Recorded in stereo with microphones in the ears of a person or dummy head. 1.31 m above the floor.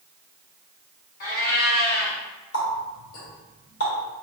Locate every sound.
1.2 s a cat meowing: 45° left (ahead or behind), 1.2 m
2.5 s a running tap: 50° left (ahead or behind), 1.8 m